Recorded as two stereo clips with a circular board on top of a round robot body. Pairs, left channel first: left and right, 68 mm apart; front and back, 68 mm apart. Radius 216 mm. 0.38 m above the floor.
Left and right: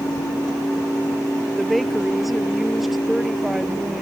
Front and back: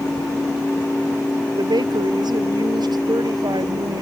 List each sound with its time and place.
1.6 s a woman speaking: straight behind; by 4.0 s 175° right